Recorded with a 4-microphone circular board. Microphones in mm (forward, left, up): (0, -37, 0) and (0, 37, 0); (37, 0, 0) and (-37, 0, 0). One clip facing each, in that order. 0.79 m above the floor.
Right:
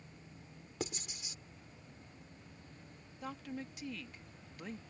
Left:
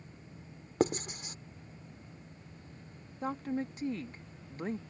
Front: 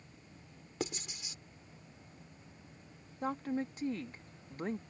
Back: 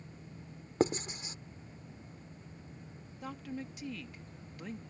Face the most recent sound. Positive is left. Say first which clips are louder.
# left 9 dB, front 6 dB
turn(degrees=45)